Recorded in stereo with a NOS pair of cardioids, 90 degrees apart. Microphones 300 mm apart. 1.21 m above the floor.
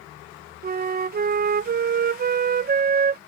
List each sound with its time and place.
0.6 s a flute: 30° right